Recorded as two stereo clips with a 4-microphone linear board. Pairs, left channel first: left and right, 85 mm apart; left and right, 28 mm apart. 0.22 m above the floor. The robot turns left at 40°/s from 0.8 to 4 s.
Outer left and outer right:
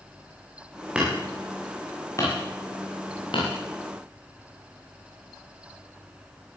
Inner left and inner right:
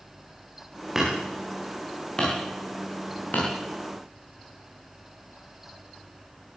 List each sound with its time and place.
0.9 s hammering: 15° right (ahead or behind), 9.5 m; by 3.5 s 85° left, 9.5 m